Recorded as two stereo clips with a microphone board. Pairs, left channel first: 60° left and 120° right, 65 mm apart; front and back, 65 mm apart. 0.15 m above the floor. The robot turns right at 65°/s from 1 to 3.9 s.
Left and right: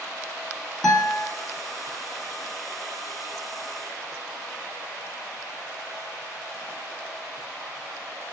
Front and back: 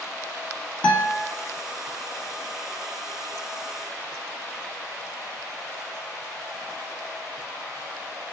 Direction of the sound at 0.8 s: 10° right.